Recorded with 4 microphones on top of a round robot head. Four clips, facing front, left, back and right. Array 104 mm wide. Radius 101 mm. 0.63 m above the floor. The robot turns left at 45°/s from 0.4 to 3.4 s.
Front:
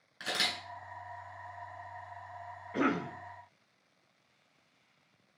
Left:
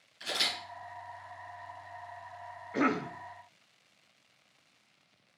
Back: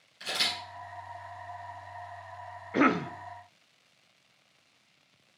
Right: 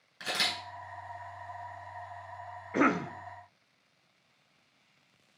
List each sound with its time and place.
0.2 s a camera shutter: 50° right, 2 m; by 0.5 s 55° right, 2 m
2.7 s a cough: 145° right, 0.6 m; by 3.1 s 165° right, 0.6 m